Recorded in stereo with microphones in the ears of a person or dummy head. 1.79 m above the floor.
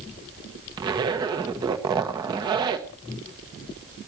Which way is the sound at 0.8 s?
20° right (ahead or behind).